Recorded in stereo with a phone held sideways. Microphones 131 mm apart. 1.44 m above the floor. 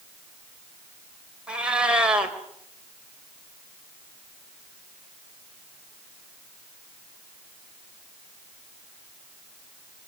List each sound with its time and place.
1.5 s a cat meowing: 10° right (ahead or behind), 3.5 m